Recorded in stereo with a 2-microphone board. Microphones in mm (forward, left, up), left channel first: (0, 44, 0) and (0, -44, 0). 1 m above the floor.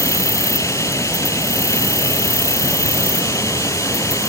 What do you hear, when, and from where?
0.0 s an insect: 35° left (ahead or behind)